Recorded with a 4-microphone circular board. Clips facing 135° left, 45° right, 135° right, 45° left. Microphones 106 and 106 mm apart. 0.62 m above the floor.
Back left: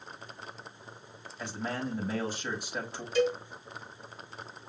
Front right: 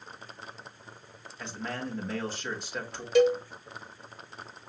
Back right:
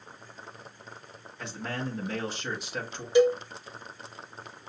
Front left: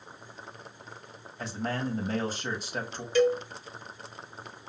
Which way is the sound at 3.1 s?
65° right.